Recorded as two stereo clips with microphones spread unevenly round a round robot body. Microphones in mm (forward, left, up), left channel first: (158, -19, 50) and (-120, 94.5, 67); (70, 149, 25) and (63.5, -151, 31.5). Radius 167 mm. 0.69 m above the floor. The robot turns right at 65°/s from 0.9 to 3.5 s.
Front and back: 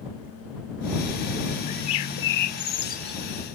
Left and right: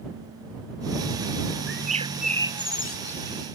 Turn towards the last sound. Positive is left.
turn(degrees=80)